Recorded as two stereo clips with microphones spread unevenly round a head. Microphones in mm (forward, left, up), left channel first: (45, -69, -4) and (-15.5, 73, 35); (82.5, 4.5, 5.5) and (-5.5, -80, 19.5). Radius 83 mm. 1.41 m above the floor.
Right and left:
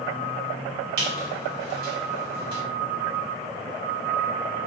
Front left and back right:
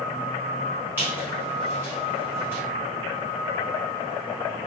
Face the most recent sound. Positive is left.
turn(degrees=145)